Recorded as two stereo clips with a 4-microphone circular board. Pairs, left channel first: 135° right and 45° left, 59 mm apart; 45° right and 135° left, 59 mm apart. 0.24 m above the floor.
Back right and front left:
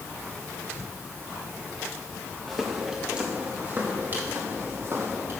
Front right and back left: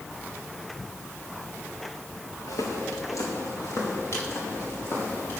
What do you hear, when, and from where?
2.5 s footsteps: 50° right, 2 m; by 5.3 s straight ahead, 5 m